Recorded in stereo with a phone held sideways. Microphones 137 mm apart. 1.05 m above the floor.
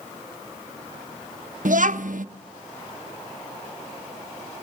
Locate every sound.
1.6 s a child speaking: 70° right (ahead or behind), 0.8 m